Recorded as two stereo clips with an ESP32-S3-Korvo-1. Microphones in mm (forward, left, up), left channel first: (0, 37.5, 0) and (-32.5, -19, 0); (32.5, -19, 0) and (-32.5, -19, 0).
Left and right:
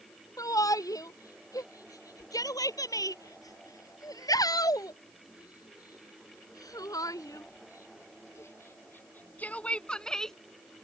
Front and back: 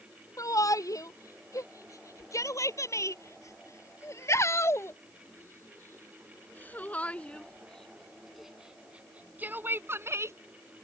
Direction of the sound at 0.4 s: 30° left.